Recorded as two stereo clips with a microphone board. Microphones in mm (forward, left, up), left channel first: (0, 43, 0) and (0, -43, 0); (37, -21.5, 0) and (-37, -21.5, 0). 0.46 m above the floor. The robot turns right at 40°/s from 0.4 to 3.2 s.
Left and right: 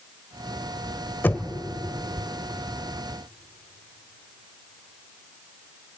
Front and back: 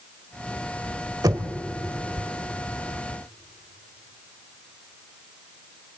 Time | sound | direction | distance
1.2 | knocking | 155° left | 1.1 m